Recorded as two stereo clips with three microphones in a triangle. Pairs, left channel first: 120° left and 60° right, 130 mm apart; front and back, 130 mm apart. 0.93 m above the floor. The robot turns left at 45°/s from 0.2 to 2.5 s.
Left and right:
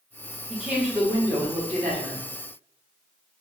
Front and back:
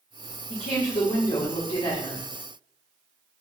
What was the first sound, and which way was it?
A woman speaking, 25° left.